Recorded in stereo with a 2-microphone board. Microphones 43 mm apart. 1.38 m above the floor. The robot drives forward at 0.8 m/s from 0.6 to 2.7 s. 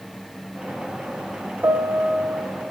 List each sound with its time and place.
1.6 s a piano: 55° right (ahead or behind), 1.1 m